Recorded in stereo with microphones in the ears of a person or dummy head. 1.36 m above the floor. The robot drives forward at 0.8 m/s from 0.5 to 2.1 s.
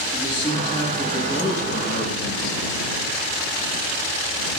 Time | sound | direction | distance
0.1 | a man speaking | 30° left (ahead or behind) | 1.7 m